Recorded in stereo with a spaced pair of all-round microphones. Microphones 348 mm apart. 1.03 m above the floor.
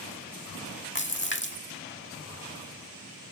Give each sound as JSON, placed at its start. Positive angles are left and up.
{"t": 0.9, "sound": "a splash", "side_deg": 30}